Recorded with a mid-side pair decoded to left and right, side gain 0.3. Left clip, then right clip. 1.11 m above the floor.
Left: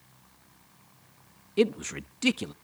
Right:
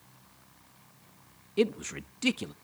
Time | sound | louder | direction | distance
1.6 | a man speaking | left 3 dB | 30° left | 0.5 m